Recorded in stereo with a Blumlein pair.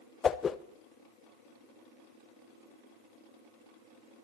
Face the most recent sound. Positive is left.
turn(degrees=20)